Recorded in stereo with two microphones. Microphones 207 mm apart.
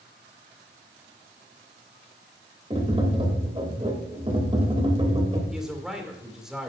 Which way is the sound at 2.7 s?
30° right (ahead or behind).